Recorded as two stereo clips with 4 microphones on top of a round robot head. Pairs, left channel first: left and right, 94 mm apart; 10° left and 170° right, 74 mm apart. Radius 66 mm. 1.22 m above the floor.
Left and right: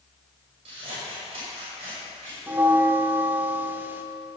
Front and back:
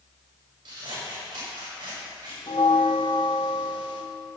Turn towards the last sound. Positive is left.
turn(degrees=-25)